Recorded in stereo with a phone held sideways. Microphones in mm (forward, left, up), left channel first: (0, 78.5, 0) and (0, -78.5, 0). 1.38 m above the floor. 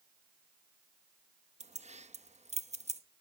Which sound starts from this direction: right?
Keys jangling, at 1.6 s.